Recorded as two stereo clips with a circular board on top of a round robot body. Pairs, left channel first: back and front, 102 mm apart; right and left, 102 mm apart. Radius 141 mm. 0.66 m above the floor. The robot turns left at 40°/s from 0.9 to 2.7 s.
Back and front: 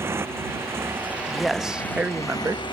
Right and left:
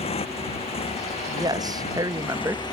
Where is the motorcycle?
70° right; by 2.7 s 140° right.